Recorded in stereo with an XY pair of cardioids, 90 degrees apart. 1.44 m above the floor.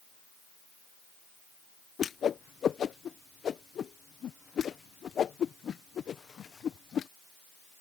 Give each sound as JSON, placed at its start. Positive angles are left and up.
{"t": 2.0, "sound": "a whoosh", "azimuth_deg": 60}